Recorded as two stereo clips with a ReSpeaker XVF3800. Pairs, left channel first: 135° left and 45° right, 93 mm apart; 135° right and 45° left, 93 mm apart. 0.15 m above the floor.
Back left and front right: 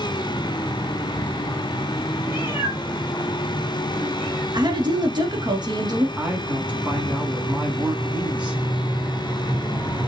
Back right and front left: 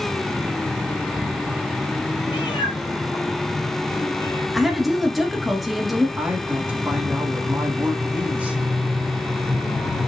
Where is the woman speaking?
45° right, 1.6 m.